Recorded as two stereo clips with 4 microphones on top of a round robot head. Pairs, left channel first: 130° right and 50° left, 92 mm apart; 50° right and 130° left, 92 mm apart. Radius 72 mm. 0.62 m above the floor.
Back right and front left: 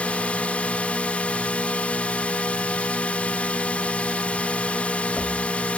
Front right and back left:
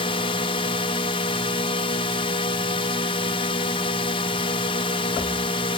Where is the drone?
50° right.